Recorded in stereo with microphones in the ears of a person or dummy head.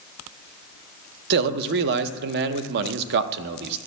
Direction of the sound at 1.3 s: 55° right (ahead or behind).